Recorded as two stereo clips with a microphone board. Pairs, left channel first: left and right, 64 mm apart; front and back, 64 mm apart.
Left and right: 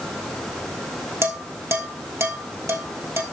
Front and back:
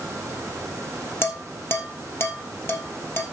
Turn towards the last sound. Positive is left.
turn(degrees=-50)